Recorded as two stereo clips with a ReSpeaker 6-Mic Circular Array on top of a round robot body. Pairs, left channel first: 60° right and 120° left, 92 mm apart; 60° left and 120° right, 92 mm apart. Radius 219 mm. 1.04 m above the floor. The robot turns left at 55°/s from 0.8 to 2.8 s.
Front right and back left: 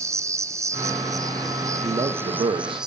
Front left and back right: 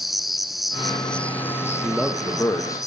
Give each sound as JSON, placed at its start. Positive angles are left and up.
{"t": 0.0, "sound": "an insect", "azimuth_deg": 150, "distance_m": 1.6}
{"t": 1.8, "sound": "a man speaking", "azimuth_deg": 160, "distance_m": 2.0}